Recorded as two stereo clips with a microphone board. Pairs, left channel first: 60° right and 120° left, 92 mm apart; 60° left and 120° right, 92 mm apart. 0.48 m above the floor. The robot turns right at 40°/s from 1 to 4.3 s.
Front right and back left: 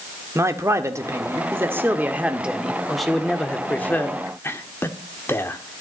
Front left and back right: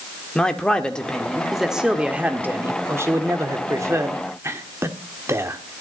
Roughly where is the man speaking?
Behind left.